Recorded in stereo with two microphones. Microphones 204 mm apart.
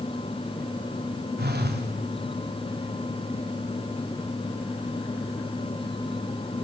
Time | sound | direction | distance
1.4 | a phone buzzing | 50° right (ahead or behind) | 2.5 m